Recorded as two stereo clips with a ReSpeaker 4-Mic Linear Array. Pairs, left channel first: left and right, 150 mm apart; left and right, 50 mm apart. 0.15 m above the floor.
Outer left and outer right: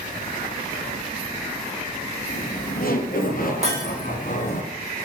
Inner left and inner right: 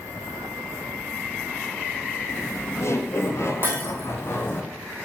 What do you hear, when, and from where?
2.3 s laughter: 70° left (ahead or behind), 3.5 m; by 4.6 s 55° left (ahead or behind), 1.9 m
3.6 s breaking glass: 45° right (ahead or behind), 4 m